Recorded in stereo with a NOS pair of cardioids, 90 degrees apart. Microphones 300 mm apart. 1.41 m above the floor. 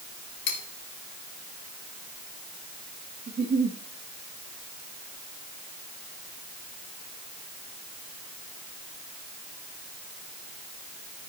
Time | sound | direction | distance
0.5 | cutlery clinking | 60° left | 2.5 m
3.3 | a giggle | 35° right | 2.5 m